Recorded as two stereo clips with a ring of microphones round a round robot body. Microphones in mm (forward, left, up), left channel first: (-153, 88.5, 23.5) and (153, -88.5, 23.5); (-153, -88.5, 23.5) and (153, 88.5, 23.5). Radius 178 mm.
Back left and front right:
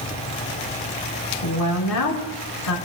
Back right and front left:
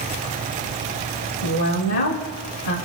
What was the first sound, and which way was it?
A woman speaking, 170° right.